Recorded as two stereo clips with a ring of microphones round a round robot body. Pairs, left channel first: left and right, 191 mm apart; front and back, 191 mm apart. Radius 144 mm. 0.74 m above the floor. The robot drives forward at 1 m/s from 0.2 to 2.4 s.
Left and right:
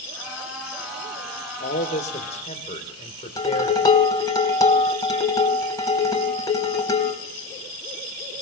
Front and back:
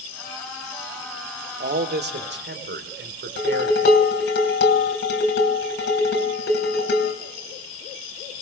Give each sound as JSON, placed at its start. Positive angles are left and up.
{"t": 1.6, "sound": "a man speaking", "azimuth_deg": 145, "distance_m": 1.8}
{"t": 3.4, "sound": "dishes clattering", "azimuth_deg": 20, "distance_m": 3.5}